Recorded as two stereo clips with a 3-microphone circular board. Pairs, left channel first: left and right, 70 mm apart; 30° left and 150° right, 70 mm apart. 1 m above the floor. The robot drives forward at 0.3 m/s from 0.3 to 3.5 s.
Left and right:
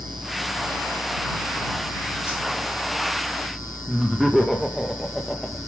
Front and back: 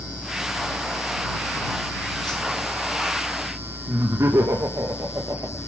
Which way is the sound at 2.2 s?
35° left.